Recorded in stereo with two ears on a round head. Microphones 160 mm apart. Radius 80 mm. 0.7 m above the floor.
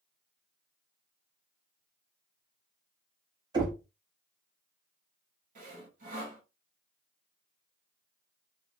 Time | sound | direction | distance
3.5 | knocking | 25° right (ahead or behind) | 1.3 m
5.5 | sawing | 45° right (ahead or behind) | 1.5 m